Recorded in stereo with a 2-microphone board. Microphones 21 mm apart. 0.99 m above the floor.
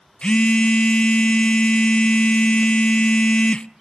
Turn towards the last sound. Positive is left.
turn(degrees=50)  # may be behind; listen again after turning